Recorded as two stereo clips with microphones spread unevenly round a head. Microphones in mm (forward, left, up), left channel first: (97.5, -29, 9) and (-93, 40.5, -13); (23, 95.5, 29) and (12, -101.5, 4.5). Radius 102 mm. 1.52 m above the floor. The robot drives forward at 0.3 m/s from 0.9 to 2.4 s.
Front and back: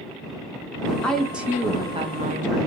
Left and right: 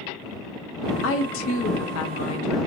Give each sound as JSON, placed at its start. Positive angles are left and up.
{"t": 1.0, "sound": "a woman speaking", "azimuth_deg": 65, "distance_m": 0.6}